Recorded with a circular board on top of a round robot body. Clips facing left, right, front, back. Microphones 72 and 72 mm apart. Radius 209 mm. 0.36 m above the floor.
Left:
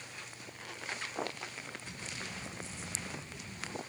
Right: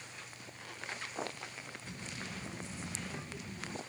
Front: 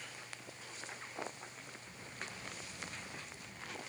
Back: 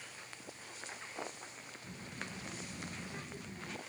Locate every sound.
1.8 s a child speaking: 125° right